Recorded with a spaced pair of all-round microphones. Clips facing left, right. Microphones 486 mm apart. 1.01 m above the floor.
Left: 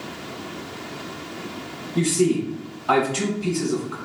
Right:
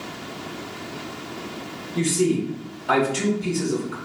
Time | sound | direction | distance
1.9 | a man speaking | 20° left (ahead or behind) | 1.4 m